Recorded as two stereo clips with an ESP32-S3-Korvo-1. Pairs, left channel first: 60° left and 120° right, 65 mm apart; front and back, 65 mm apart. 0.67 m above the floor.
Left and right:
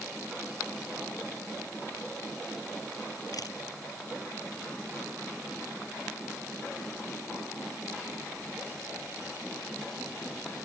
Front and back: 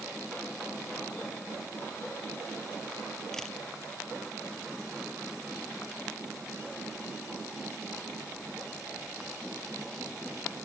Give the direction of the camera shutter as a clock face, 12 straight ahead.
9 o'clock.